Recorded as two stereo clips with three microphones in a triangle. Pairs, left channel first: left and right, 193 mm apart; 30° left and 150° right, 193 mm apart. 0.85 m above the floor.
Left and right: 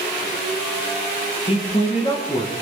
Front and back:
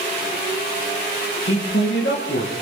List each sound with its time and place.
1.5 s a man speaking: 35° left, 8.5 m; by 2.5 s 25° left, 8.5 m